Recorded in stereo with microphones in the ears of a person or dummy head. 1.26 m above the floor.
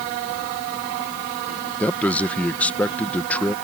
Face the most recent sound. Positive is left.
turn(degrees=10)  # may be behind; listen again after turning